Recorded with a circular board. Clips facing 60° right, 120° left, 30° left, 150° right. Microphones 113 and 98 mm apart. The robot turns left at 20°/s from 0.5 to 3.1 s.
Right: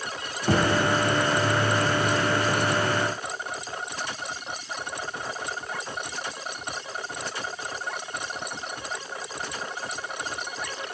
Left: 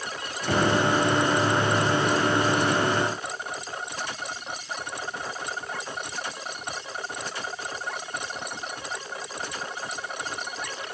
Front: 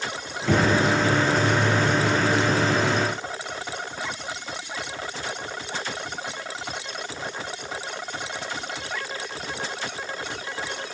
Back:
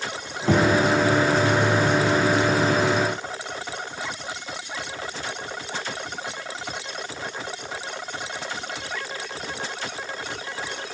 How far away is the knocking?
About 2 m.